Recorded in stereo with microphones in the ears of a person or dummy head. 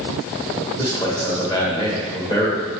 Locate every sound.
0.8 s a man speaking: 20° left (ahead or behind), 1.5 m